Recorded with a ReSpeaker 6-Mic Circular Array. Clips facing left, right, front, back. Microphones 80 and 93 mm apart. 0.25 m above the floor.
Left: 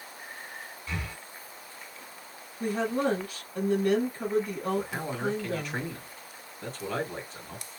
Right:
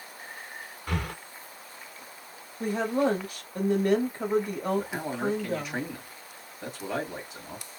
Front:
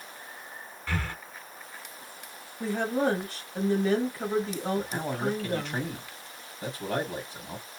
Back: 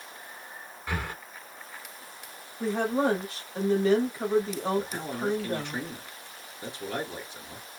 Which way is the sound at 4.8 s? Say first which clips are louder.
Right 2 dB, even; 15° right.